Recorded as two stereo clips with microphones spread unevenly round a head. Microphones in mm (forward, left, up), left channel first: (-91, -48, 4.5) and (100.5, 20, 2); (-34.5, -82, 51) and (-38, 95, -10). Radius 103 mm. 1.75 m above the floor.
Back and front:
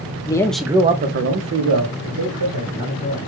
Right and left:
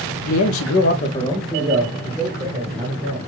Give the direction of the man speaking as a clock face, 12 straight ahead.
3 o'clock.